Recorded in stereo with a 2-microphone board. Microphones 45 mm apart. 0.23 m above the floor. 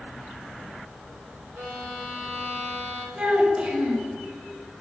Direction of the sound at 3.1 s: 25° right (ahead or behind).